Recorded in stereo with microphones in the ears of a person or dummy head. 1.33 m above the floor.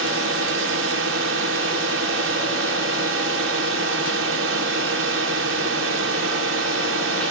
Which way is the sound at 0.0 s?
65° right (ahead or behind).